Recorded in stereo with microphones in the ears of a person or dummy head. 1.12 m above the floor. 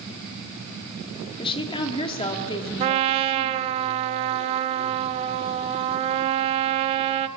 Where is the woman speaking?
25° left (ahead or behind), 2.5 m.